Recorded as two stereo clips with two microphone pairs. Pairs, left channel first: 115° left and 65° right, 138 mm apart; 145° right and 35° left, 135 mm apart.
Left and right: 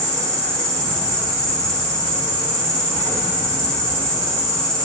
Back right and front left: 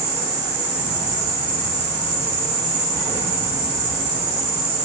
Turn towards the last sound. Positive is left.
turn(degrees=35)